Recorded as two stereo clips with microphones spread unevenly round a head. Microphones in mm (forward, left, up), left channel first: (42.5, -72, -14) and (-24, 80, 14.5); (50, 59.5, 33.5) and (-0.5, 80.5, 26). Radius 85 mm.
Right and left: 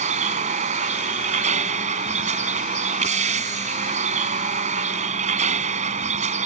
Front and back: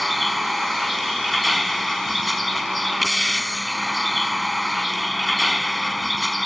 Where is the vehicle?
65° left.